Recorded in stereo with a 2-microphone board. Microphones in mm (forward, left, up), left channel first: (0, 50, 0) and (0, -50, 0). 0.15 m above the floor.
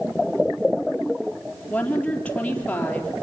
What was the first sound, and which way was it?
A woman speaking, 10° left (ahead or behind).